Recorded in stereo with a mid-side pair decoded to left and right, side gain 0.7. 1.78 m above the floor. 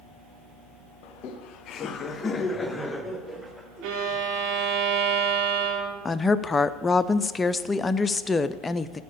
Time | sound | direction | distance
1.0 | laughter | 70° left | 1.0 m
3.8 | a violin | 65° right | 2 m
6.0 | a woman speaking | 20° left | 0.5 m